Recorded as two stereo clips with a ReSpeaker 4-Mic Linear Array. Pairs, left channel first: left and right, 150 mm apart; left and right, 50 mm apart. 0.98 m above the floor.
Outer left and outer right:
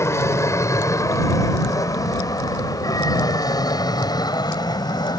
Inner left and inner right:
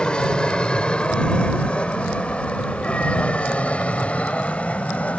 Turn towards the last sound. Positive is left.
turn(degrees=25)  # may be behind; listen again after turning